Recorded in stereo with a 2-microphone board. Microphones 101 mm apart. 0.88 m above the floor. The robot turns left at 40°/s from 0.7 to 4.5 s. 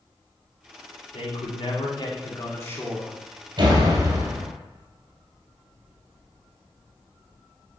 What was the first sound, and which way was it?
A man speaking, 90° left.